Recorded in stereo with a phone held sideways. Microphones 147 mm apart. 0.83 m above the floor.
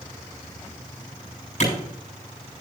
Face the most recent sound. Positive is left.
turn(degrees=55)  # may be behind; listen again after turning